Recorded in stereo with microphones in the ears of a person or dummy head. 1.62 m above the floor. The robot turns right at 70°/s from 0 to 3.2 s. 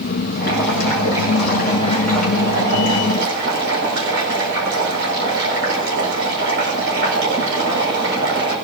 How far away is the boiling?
About 6 m.